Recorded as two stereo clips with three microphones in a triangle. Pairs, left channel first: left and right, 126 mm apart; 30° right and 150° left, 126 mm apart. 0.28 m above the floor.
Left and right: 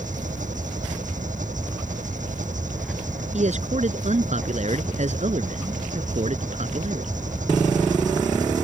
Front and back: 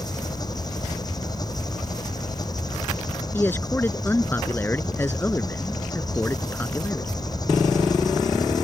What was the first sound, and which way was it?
An engine running, 90° right.